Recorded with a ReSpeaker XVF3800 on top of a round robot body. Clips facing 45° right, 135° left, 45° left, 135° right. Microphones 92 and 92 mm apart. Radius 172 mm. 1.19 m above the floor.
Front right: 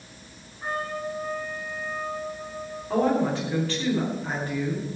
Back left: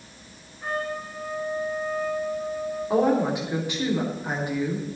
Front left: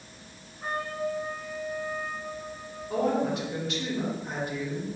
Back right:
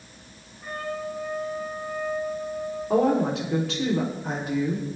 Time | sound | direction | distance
0.6 | a trumpet | 25° left | 6 m
2.9 | a woman speaking | 150° right | 3.5 m